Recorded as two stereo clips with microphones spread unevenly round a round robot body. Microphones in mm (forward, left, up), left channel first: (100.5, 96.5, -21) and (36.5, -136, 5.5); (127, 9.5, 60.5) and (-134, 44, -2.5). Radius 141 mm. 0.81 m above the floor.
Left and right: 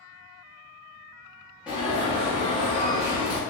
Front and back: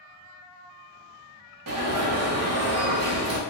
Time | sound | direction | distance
1.7 | an alarm | 165° left | 0.8 m